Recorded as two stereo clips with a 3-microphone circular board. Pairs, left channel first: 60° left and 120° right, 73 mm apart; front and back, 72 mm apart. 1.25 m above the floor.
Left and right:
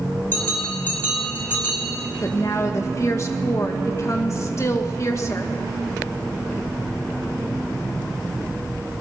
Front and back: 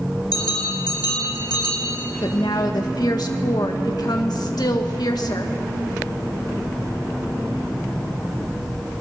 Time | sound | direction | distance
0.3 | a bell | 5° right | 4.5 m
2.2 | a woman speaking | 15° left | 1.6 m